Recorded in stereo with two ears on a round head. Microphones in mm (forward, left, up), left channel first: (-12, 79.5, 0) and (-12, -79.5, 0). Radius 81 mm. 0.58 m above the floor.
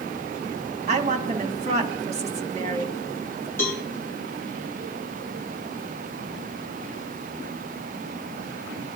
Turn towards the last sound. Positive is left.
turn(degrees=15)  # may be behind; listen again after turning